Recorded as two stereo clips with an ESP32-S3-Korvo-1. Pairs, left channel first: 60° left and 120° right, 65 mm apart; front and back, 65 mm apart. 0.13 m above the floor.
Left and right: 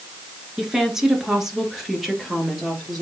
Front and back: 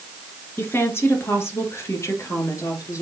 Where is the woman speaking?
40° right, 2 m; by 3.0 s 35° right, 3 m.